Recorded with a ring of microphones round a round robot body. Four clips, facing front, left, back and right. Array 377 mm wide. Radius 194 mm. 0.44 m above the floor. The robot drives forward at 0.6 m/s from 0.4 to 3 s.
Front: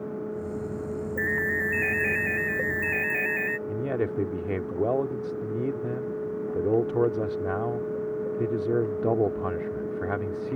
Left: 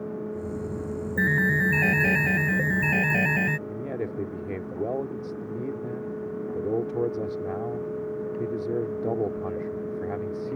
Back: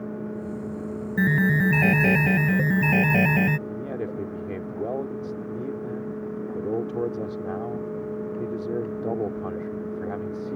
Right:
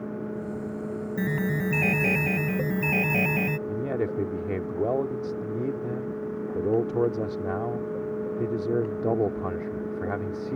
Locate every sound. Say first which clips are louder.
1.2 s an alarm: left 4 dB, back 8 dB; 175° left
3.7 s a man speaking: right 4 dB, front 3 dB; 30° right